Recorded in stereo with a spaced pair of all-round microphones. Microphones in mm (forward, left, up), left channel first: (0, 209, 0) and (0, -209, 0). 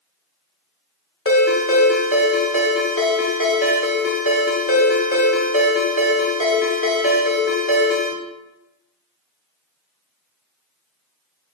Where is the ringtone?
30° left (ahead or behind), 1.4 m.